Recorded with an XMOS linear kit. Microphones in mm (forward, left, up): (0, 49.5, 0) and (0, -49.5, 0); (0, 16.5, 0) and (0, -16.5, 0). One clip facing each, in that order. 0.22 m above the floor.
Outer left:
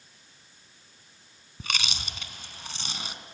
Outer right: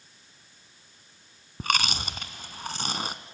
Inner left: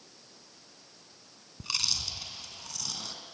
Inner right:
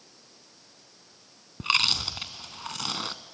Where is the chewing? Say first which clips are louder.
Outer right 7 dB, inner right 9 dB; 50° right (ahead or behind), 1.0 m.